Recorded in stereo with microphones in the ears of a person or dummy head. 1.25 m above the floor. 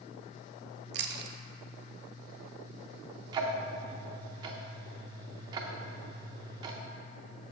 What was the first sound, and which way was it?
Chewing, 45° right (ahead or behind).